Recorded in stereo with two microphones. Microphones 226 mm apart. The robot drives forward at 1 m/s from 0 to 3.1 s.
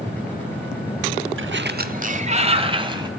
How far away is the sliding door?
About 0.8 m.